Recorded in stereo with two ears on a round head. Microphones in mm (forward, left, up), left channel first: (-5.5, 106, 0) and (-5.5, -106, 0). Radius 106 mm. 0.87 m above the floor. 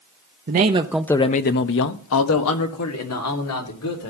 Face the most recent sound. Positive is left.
turn(degrees=80)